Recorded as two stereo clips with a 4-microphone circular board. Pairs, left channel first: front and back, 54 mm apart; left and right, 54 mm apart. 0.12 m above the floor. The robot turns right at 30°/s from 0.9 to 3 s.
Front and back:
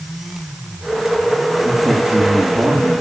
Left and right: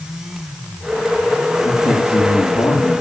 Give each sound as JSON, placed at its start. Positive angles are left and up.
{"t": 1.6, "sound": "a man speaking", "azimuth_deg": 105, "distance_m": 6.0}